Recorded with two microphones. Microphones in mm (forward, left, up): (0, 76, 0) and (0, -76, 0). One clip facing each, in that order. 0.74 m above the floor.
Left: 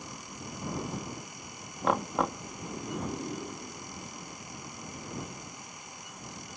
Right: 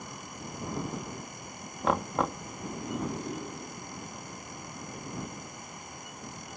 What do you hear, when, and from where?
1.8 s knocking: centre (ahead or behind)